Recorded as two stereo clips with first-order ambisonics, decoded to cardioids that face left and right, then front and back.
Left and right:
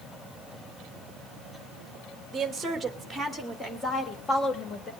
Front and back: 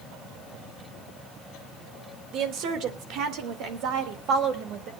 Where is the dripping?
No dripping in this recording.